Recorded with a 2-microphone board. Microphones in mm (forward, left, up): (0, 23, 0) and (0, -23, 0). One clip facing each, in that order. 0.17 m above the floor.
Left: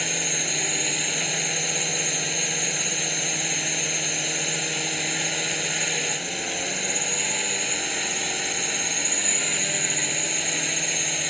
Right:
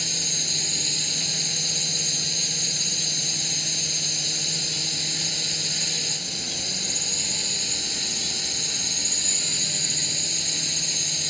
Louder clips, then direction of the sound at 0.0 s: Left 4 dB; 40° left (ahead or behind).